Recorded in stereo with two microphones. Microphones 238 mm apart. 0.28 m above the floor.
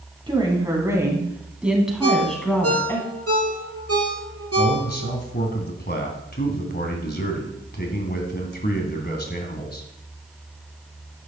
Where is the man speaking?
40° left (ahead or behind), 2 m.